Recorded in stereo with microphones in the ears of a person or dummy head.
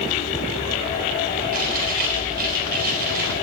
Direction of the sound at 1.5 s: 55° right (ahead or behind).